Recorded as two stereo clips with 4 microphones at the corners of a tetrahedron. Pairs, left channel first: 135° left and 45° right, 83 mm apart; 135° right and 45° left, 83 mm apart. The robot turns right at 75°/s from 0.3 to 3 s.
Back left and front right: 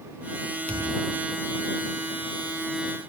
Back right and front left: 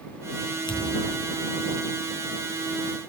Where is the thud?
150° right; by 1.3 s 105° right.